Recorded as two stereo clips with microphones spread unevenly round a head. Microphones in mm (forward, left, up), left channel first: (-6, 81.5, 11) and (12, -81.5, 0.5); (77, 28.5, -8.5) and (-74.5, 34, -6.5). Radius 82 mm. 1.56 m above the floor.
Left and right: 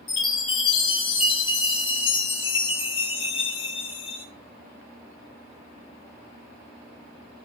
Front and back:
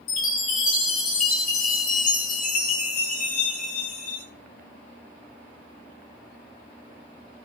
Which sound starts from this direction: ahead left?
A chime, at 0.1 s.